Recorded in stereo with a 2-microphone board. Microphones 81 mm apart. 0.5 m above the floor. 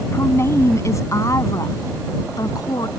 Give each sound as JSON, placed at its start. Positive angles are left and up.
{"t": 0.1, "sound": "a woman speaking", "side_deg": 35}